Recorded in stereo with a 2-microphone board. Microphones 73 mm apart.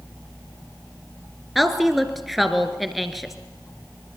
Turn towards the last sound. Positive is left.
turn(degrees=0)  # may be behind; listen again after turning